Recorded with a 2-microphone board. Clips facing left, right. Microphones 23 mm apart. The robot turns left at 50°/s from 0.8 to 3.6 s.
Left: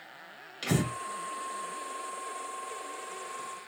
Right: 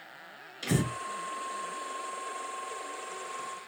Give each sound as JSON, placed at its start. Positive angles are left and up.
{"t": 0.6, "sound": "breathing", "side_deg": 55, "distance_m": 2.5}